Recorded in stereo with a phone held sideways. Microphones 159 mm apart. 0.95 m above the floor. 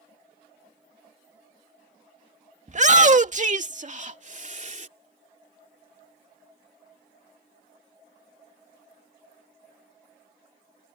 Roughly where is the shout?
Right.